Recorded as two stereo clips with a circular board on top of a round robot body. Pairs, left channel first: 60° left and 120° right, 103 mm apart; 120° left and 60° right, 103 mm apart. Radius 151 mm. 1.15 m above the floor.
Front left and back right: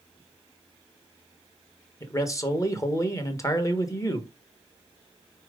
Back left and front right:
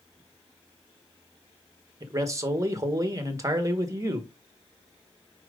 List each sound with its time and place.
2.0 s a man speaking: straight ahead, 1.5 m